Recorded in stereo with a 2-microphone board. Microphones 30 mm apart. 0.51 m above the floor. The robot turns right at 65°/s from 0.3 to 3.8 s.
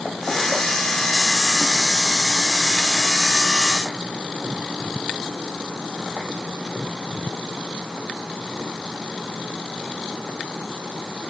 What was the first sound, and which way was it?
Only background noise.